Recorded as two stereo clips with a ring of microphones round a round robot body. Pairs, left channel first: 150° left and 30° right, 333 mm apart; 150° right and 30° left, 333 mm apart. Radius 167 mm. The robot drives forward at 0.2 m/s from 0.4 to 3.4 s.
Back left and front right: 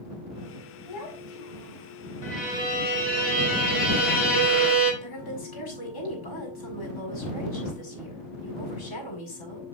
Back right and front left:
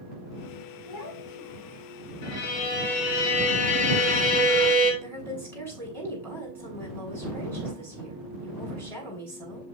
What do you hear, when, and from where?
0.8 s a child speaking: 170° left, 3 m
2.2 s a violin: 145° right, 2.5 m
5.0 s a woman speaking: 125° left, 6 m